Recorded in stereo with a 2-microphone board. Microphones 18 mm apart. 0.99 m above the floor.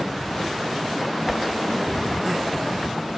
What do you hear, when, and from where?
1.3 s a whoosh: centre (ahead or behind), 0.5 m